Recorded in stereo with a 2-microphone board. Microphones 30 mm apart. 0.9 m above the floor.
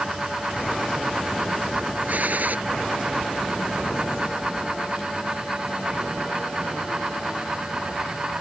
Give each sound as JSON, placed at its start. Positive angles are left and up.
{"t": 2.1, "sound": "a gunshot", "side_deg": -60}